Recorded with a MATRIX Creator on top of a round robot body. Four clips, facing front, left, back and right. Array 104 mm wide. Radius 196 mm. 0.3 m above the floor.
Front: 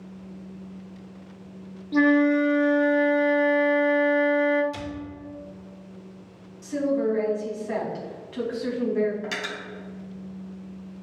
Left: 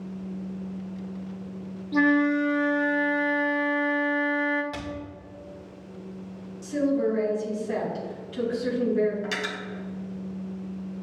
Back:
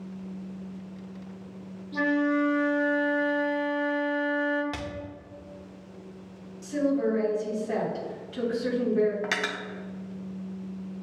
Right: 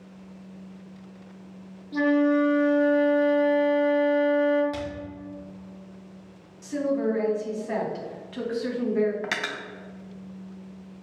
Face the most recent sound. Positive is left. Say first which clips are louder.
# even, back 2 dB
turn(degrees=-135)